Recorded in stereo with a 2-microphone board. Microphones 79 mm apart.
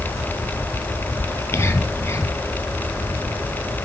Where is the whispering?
30° left (ahead or behind), 3 m.